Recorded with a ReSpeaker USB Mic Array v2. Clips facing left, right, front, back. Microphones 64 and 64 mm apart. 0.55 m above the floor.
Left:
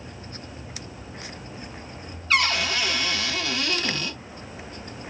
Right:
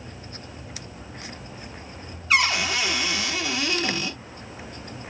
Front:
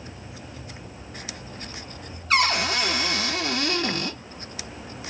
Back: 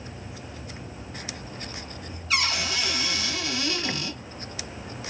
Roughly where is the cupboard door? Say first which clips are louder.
Right 1 dB, front 5 dB; ahead.